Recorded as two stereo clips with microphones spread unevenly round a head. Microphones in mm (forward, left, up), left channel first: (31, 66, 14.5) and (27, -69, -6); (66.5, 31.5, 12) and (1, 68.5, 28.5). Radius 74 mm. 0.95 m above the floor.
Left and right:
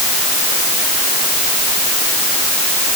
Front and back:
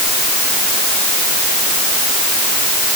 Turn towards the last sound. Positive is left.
No sound to turn to.